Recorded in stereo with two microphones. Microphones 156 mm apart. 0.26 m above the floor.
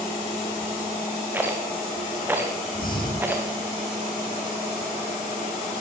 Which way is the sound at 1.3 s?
10° right (ahead or behind).